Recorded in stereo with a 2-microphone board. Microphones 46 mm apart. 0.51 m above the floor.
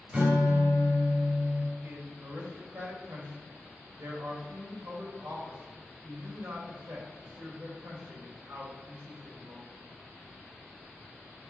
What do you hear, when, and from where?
0.1 s a guitar: 30° right (ahead or behind), 1.5 m
1.8 s a man speaking: 65° right (ahead or behind), 1.9 m